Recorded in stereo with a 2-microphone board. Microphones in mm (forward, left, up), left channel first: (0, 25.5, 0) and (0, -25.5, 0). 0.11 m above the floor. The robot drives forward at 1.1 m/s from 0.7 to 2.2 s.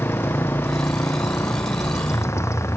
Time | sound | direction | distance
0.0 | a motorcycle | 55° left (ahead or behind) | ?